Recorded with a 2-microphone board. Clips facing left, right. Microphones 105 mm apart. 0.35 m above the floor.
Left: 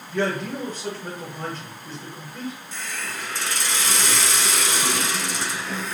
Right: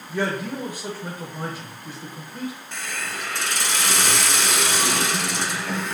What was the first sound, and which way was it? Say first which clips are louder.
A man speaking: left 1 dB; 15° right (ahead or behind).